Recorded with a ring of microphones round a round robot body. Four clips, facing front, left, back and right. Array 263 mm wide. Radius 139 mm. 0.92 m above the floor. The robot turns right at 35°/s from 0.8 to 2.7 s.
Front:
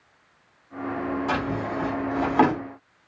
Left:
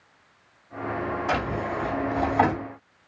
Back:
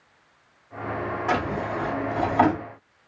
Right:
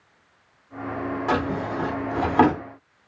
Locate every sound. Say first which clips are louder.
1.3 s a drawer: right 4 dB, back 1 dB; 105° right, 1.5 m; by 2.6 s 60° right, 1.5 m